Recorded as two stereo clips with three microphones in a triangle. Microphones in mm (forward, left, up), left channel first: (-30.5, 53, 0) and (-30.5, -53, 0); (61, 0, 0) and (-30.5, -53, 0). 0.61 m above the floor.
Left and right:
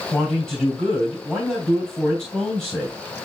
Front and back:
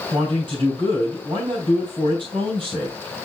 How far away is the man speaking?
About 3 m.